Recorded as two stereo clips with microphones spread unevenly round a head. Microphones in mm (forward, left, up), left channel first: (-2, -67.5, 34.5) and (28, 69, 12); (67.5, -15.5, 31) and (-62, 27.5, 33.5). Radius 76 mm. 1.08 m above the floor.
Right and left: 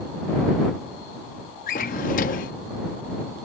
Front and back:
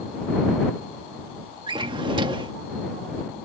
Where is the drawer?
140° right.